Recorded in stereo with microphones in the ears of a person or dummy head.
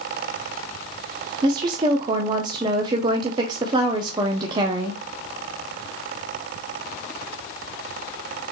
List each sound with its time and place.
1.4 s a woman speaking: 25° right (ahead or behind), 0.7 m